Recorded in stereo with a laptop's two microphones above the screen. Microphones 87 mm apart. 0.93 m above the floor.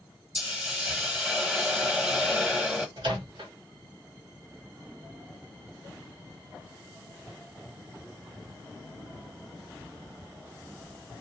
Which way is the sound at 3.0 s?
65° right (ahead or behind).